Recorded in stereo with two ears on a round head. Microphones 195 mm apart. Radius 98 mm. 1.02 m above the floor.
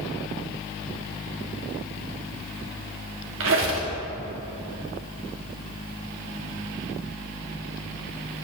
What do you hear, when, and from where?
3.4 s a squeak: 65° right (ahead or behind), 1.1 m